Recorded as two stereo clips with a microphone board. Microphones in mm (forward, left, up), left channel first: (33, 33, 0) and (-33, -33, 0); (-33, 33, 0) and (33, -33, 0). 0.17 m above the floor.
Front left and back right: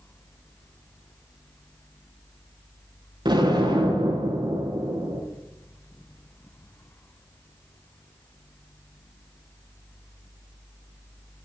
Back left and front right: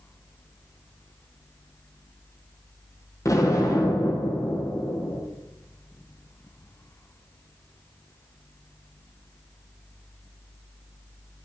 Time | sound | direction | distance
3.2 | an explosion | 170° right | 6 m